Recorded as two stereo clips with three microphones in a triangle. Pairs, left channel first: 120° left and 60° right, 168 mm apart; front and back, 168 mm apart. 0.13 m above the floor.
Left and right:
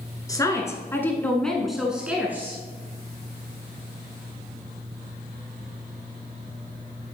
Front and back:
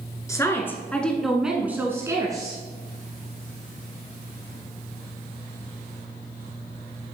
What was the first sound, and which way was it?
A woman speaking, 60° left.